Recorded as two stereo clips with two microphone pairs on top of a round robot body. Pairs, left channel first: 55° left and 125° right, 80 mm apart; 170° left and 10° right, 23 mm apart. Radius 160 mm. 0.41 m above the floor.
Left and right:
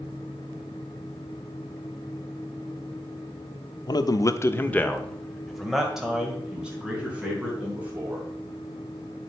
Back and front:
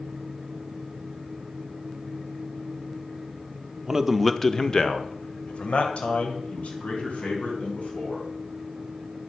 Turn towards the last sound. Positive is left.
turn(degrees=165)